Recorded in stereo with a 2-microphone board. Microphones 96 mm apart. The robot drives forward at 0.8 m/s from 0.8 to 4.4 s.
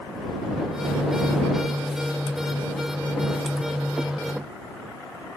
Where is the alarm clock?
No alarm clock in this recording.